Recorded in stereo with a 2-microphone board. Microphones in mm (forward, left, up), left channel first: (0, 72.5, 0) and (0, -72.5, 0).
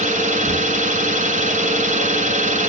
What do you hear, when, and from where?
0.0 s an engine running: 60° right (ahead or behind), 1.3 m